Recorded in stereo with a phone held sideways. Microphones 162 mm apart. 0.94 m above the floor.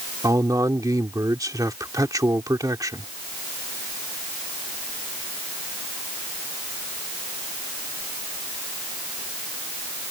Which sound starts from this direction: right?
A man speaking, at 0.2 s.